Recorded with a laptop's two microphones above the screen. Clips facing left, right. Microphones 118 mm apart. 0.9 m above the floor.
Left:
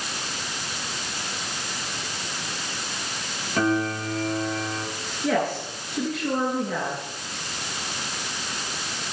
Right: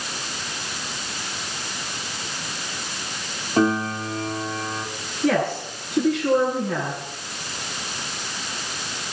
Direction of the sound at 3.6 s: 30° right (ahead or behind).